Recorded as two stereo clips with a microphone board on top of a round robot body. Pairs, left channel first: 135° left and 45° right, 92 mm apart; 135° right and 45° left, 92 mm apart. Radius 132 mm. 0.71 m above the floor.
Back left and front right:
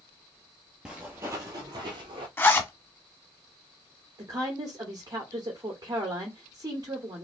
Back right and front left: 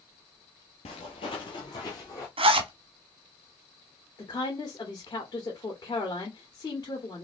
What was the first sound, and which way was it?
Footsteps, 125° right.